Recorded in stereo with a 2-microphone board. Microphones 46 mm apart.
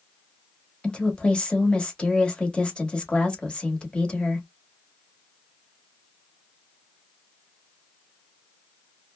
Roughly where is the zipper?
I don't hear a zipper.